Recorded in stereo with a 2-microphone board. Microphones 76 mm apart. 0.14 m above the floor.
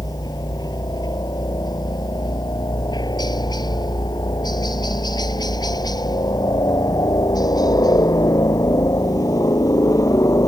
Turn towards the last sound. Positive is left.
turn(degrees=45)  # may be behind; listen again after turning